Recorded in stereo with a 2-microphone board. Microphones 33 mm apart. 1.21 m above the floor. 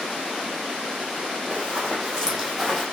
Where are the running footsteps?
30° right (ahead or behind), 2.5 m; by 2.8 s centre (ahead or behind), 2 m.